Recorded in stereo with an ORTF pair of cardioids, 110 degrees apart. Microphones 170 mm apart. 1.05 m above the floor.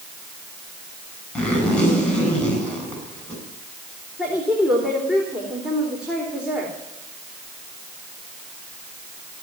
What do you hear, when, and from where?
1.4 s a zipper: 5° left, 8 m
4.2 s a woman speaking: 5° right, 4 m